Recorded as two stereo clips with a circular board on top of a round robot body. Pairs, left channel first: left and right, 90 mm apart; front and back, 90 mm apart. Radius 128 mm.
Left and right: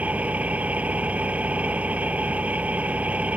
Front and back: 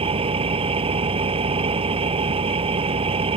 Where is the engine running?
165° right.